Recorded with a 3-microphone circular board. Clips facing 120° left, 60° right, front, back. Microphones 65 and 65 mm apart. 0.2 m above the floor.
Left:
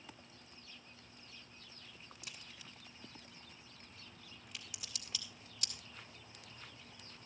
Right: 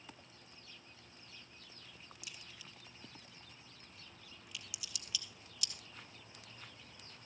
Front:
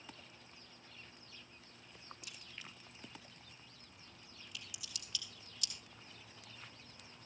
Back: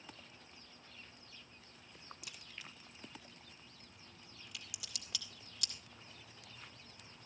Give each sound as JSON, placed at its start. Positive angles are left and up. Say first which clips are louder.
{"t": 2.2, "sound": "a crack", "louder": "left 1 dB, even", "azimuth_deg": 170, "distance_m": 3.0}